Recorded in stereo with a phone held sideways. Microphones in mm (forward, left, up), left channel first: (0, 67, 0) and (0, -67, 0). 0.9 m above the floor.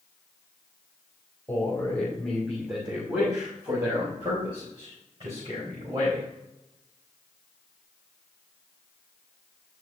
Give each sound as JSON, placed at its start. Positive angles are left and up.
{"t": 1.5, "sound": "a man speaking", "side_deg": 15, "distance_m": 3.0}